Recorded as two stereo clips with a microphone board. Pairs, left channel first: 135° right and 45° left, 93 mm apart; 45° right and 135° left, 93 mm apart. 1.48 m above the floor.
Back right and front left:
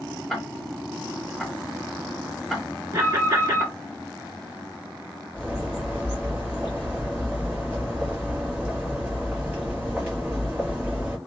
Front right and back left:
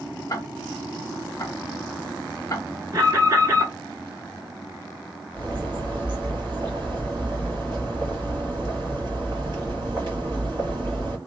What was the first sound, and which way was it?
Ticking, 50° right.